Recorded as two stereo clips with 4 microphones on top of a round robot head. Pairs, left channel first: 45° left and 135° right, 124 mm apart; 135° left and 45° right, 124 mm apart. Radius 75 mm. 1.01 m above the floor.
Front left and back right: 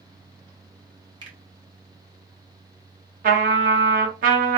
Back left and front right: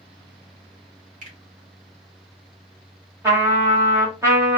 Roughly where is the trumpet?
Behind right.